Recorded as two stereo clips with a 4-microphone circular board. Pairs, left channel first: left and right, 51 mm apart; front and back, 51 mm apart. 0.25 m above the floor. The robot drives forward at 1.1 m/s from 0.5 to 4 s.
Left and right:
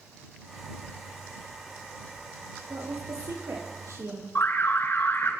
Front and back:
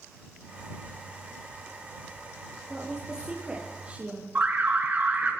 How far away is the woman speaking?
About 6 m.